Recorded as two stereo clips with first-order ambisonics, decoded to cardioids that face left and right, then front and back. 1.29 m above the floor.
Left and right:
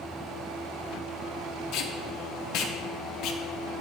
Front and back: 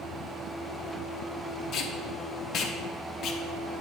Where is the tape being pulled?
55° left, 0.7 m.